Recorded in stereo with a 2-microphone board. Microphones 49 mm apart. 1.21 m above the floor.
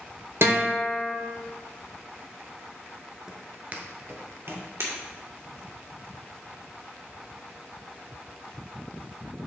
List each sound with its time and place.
0.4 s a guitar: 60° right (ahead or behind), 1.7 m
3.3 s footsteps: 10° right (ahead or behind), 1.2 m; by 4.7 s 55° right (ahead or behind), 2 m
4.8 s breaking glass: 70° right (ahead or behind), 2 m